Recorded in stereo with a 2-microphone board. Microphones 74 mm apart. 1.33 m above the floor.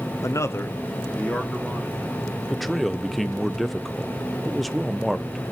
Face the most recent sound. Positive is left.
turn(degrees=0)  # may be behind; listen again after turning